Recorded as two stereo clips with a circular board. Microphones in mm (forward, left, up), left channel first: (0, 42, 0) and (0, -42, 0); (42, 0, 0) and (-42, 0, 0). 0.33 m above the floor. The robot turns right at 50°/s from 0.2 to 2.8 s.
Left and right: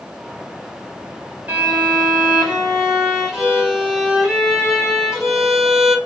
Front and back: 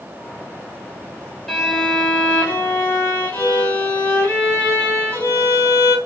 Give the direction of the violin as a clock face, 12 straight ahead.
3 o'clock.